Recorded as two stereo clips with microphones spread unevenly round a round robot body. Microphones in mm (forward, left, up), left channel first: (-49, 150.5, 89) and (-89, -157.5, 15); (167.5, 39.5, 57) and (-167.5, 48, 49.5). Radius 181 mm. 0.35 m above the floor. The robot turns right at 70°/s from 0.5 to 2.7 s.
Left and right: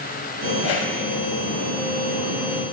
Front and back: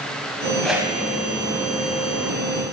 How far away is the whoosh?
About 1.5 m.